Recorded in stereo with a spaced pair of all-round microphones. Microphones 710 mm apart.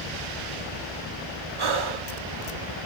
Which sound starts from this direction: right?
Breathing, at 1.6 s.